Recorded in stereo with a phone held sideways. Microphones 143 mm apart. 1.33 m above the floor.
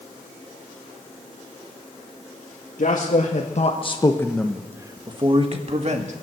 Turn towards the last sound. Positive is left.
turn(degrees=-55)  # may be behind; listen again after turning